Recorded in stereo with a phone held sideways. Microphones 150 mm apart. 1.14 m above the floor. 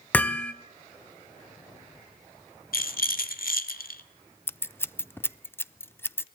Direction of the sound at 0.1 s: 10° left (ahead or behind).